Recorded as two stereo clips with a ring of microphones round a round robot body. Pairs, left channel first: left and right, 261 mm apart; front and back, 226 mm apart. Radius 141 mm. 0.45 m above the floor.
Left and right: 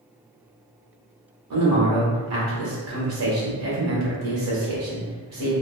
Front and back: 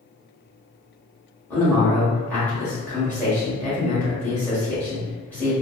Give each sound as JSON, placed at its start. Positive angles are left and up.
{"t": 1.5, "sound": "a man speaking", "azimuth_deg": -85, "distance_m": 1.6}